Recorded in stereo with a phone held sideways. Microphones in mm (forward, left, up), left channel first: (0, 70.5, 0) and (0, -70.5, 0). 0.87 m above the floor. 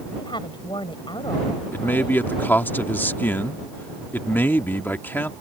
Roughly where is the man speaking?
Centre.